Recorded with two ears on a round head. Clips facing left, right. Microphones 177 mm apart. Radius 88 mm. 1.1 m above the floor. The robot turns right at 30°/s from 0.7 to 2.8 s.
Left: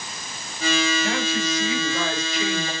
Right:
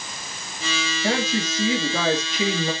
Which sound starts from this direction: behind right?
A woman speaking, at 1.0 s.